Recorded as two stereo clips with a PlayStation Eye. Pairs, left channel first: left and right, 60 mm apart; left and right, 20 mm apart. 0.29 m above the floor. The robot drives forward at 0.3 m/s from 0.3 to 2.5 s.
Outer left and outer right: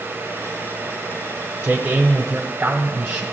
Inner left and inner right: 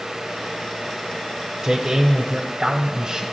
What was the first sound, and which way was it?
A man speaking, 15° right (ahead or behind).